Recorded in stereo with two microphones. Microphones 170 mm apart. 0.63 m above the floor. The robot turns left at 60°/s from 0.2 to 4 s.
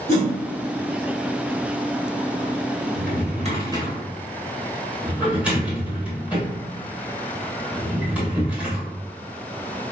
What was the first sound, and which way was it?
A whoosh, 75° left (ahead or behind).